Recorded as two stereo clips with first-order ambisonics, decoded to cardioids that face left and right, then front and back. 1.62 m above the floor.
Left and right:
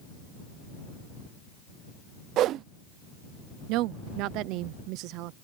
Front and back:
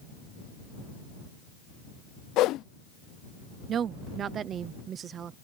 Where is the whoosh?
45° right.